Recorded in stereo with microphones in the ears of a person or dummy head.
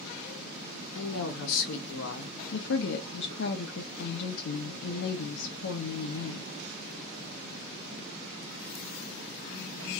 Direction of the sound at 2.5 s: 60° left (ahead or behind).